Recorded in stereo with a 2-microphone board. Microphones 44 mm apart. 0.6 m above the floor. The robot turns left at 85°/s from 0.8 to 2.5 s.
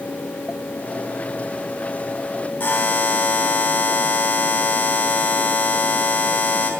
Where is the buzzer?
40° left (ahead or behind), 3 m.